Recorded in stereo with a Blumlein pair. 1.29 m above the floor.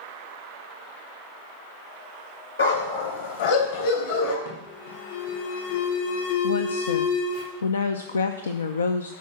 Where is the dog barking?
70° left, 3 m; by 4.3 s 50° left, 3 m.